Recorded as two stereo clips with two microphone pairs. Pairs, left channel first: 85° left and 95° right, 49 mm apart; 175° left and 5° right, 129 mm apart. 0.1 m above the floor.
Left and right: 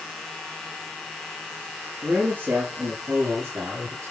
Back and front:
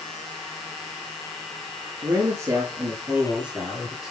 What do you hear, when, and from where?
2.0 s a man speaking: 55° right, 2.5 m; by 4.1 s 95° right, 3 m